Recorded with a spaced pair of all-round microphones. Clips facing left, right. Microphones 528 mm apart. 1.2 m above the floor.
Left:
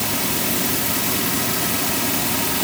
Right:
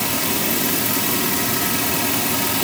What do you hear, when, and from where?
Only background noise.